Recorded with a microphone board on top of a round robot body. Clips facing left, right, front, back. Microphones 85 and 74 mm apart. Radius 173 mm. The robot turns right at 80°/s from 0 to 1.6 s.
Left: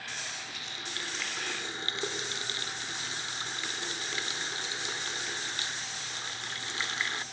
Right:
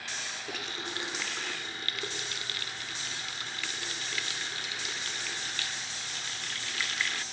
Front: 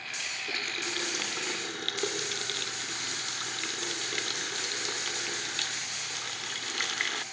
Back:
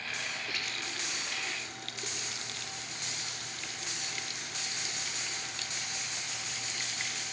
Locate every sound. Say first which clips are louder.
0.5 s a running tap: right 4 dB, front 3 dB; 65° right; by 7.2 s 25° left